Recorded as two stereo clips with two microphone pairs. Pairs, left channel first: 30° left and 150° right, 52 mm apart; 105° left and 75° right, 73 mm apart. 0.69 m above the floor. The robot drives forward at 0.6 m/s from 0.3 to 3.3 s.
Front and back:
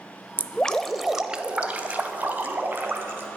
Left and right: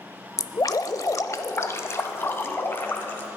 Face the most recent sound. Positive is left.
turn(degrees=165)